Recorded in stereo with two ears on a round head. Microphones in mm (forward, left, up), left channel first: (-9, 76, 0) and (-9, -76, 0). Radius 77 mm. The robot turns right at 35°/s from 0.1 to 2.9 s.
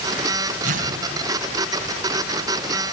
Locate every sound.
0.6 s tearing paper: 50° right (ahead or behind), 3.5 m; by 0.9 s 55° right (ahead or behind), 3.5 m